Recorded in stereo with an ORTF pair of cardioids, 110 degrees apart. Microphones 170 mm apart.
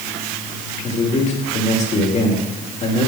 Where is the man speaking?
40° left, 2.5 m.